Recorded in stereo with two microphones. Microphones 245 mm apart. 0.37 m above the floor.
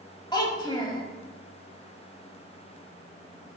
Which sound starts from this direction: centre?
A child speaking, at 0.3 s.